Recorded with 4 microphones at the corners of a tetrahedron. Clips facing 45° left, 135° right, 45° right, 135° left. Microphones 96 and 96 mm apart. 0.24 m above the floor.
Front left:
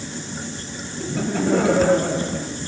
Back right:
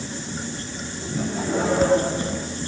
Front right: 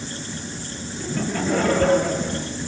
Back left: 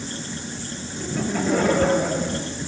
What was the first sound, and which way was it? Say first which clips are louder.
Laughter: front left 4 dB, back left 1 dB; 50° left.